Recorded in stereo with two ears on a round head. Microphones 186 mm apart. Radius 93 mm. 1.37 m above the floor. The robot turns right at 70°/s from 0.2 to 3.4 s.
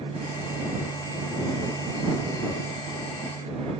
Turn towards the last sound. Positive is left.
No sound to turn to.